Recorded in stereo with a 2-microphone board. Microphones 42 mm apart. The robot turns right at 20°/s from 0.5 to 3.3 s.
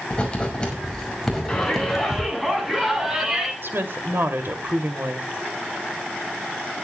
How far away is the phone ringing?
I don't hear a phone ringing.